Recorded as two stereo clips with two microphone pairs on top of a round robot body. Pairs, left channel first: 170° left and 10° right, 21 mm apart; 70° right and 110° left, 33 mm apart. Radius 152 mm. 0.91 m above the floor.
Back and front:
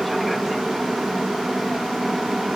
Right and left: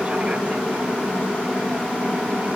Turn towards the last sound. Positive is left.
turn(degrees=65)